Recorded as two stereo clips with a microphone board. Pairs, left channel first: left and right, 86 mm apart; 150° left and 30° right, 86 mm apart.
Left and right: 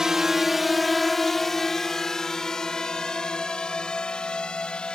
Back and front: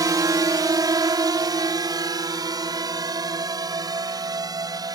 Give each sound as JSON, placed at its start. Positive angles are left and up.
{"t": 0.0, "sound": "a drone", "azimuth_deg": -10}